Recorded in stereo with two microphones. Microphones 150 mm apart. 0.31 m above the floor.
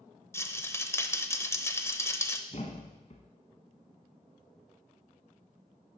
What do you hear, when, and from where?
0.3 s a rattle: 15° left (ahead or behind), 0.5 m
2.5 s a thud: 50° left (ahead or behind), 1.2 m